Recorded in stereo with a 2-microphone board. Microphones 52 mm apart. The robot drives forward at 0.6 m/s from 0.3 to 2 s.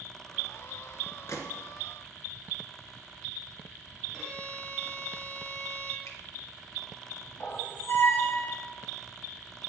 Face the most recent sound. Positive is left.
turn(degrees=55)  # may be behind; listen again after turning